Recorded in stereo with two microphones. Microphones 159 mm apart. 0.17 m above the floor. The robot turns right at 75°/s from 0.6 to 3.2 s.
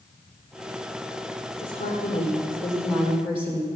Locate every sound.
1.6 s a woman speaking: 95° left, 7.5 m; by 3.7 s 145° right, 7.5 m